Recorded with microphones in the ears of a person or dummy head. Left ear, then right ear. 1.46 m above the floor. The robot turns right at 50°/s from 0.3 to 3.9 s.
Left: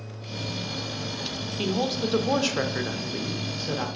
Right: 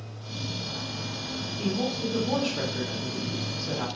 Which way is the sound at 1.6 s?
50° left.